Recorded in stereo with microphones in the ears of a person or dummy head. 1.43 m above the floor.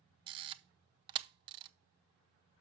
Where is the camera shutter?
30° right (ahead or behind), 0.6 m.